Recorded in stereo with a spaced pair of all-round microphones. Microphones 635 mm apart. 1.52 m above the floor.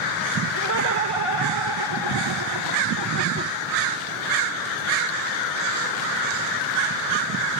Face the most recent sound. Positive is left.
turn(degrees=-15)  # may be behind; listen again after turning